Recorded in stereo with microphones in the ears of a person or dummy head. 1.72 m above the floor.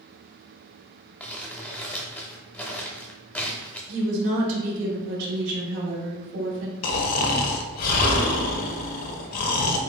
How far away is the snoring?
About 0.8 m.